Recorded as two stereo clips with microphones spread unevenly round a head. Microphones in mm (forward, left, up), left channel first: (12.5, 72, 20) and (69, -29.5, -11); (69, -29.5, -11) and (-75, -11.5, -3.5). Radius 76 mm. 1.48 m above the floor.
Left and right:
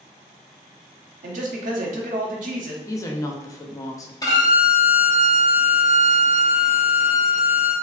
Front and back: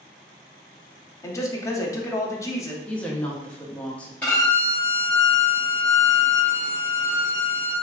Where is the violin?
75° left, 1.1 m.